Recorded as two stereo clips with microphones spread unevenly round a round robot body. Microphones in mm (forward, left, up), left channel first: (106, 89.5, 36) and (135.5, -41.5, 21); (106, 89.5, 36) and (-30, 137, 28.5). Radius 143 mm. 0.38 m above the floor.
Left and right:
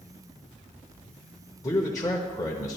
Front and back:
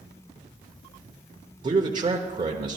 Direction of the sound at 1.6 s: 165° left.